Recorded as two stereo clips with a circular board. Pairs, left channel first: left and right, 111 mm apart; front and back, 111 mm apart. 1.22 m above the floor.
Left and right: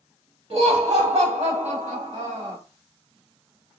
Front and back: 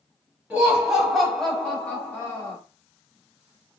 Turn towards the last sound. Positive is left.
turn(degrees=-65)